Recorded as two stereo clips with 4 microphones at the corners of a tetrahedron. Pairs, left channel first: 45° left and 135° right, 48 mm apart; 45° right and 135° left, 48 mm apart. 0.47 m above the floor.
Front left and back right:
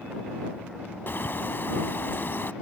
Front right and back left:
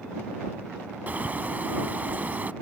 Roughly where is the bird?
Left.